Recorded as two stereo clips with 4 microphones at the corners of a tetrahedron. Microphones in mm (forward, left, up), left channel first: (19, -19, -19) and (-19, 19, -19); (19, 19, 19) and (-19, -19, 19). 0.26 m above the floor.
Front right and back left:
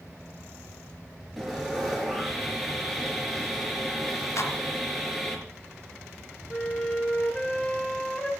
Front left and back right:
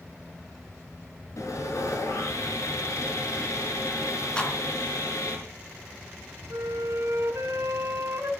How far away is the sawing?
About 5 m.